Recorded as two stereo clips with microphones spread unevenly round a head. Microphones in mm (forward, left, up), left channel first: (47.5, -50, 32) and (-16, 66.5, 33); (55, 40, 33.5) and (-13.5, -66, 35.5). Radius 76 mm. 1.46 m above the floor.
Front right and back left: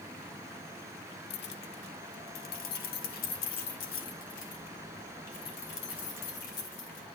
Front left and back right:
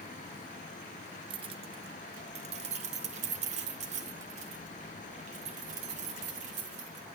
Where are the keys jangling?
75° right, 0.6 m; by 7.0 s 95° right, 4 m.